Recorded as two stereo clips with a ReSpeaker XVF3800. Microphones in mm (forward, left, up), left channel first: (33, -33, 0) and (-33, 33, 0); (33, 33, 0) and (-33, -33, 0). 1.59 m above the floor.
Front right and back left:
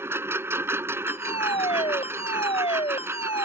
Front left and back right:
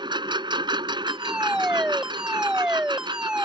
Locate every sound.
0.0 s a lawn mower: 160° right
1.1 s a fire alarm: 55° right